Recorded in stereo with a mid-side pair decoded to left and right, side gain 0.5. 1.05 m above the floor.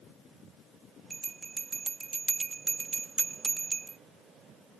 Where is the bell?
25° right.